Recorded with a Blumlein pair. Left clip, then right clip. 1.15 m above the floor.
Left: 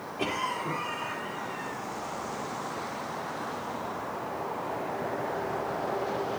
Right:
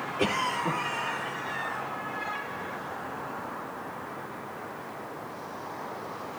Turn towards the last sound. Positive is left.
turn(degrees=-15)